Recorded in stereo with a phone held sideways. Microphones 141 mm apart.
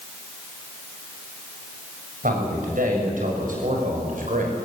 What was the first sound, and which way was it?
A man speaking, 75° right (ahead or behind).